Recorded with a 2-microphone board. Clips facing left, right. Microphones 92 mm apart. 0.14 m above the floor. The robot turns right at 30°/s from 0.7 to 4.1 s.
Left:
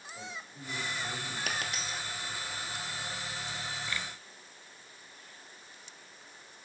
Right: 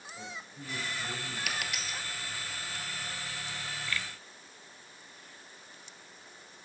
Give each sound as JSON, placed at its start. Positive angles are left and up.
{"t": 0.1, "sound": "a man speaking", "side_deg": 25, "distance_m": 3.5}
{"t": 1.5, "sound": "a dropped coin", "side_deg": 45, "distance_m": 0.9}